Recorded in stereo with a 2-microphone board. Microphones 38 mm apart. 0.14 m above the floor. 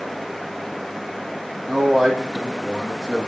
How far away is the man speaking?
About 3.5 m.